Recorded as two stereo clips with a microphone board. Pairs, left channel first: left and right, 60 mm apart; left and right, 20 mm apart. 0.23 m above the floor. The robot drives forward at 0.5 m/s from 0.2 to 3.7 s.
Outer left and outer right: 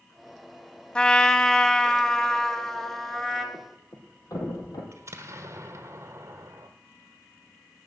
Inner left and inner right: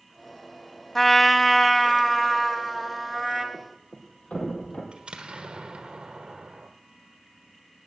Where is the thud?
80° left, 3.5 m.